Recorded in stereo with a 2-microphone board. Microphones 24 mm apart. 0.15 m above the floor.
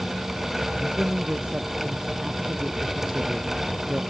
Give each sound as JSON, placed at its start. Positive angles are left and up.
{"t": 0.8, "sound": "a man speaking", "side_deg": -50}